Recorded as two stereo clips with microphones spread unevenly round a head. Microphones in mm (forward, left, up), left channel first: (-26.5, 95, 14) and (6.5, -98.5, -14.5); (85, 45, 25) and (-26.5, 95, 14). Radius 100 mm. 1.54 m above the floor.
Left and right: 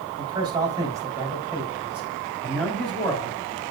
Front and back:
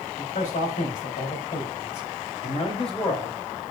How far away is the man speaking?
About 4 m.